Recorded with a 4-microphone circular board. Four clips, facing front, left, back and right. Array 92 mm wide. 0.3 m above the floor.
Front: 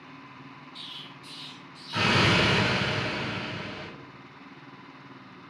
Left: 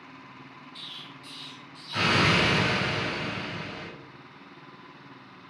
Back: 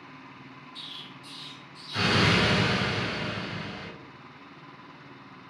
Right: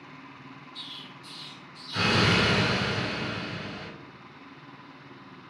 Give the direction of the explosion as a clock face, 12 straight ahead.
11 o'clock.